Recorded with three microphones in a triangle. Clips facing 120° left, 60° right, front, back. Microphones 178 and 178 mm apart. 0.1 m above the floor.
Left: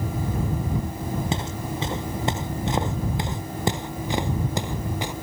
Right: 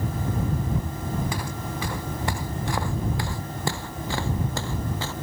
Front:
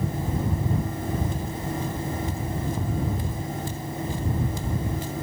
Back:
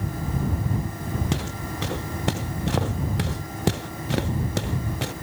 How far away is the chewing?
No chewing in this recording.